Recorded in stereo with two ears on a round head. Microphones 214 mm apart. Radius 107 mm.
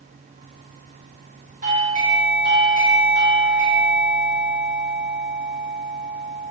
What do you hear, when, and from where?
1.6 s a doorbell: 35° right (ahead or behind), 2.0 m